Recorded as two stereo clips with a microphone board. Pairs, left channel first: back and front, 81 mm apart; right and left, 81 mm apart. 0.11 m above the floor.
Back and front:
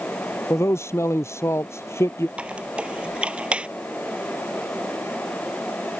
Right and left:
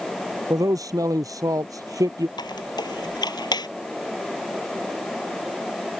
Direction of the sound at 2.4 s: 75° right.